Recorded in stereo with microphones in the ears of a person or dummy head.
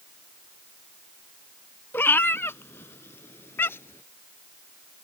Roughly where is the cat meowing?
Centre.